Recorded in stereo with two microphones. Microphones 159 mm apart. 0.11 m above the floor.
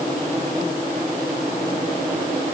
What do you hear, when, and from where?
Only background noise.